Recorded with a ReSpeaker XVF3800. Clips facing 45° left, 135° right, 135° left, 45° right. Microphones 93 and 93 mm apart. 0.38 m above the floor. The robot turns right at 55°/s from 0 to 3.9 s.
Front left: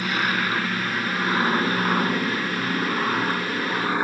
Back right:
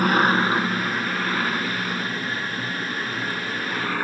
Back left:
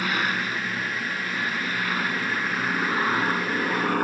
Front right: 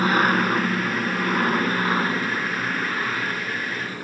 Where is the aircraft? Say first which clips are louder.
Back right 6 dB, front right 7 dB; 100° right; by 4.0 s 115° left.